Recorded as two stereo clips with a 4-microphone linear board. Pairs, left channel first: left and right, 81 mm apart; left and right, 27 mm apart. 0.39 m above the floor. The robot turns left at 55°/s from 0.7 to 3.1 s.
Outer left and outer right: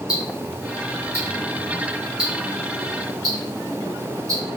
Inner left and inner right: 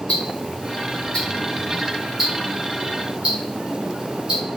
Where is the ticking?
50° left (ahead or behind), 1.8 m; by 4.4 s 50° right (ahead or behind), 1.8 m.